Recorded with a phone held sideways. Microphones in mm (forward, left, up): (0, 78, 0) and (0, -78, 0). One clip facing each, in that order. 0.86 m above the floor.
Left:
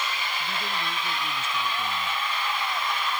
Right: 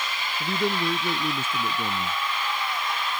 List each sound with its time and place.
0.4 s a man speaking: 60° right (ahead or behind)